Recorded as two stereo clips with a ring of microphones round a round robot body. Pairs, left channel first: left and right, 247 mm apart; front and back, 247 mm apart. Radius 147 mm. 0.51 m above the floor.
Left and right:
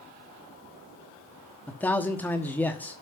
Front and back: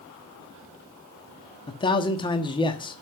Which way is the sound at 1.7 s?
20° left.